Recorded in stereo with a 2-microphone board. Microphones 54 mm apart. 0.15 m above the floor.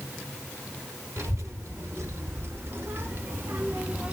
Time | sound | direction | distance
1.2 | a child speaking | 65° right (ahead or behind) | 2.5 m